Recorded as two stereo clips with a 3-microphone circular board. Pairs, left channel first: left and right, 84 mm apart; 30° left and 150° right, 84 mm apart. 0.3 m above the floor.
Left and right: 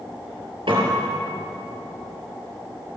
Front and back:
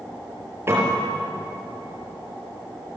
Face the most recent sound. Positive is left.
turn(degrees=-90)